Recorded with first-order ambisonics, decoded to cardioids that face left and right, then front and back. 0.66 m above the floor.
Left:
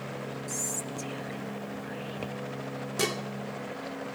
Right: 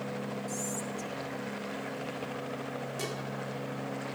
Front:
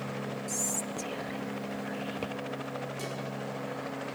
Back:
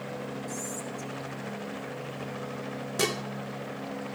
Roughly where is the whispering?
Ahead left.